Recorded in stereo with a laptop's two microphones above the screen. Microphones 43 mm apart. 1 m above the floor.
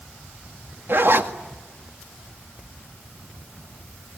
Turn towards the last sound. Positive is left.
turn(degrees=-55)  # may be behind; listen again after turning